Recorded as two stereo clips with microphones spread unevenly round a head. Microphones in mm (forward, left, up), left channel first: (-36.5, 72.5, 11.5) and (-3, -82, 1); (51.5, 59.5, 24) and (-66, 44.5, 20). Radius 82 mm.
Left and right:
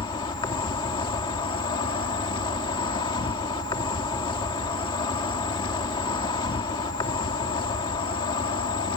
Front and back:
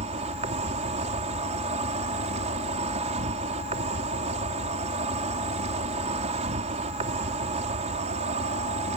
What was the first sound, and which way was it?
An insect, 165° left.